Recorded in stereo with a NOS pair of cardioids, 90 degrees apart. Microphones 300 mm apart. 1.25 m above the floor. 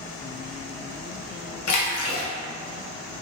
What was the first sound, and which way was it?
A splash, 70° left.